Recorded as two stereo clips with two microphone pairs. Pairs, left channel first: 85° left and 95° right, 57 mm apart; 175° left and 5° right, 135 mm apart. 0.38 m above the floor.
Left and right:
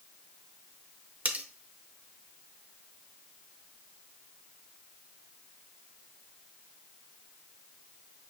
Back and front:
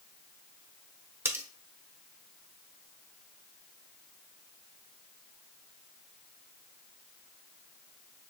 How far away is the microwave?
No microwave in this recording.